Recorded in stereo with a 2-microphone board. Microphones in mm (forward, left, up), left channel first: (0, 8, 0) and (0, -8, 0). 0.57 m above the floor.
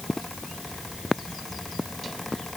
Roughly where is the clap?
No clap in this recording.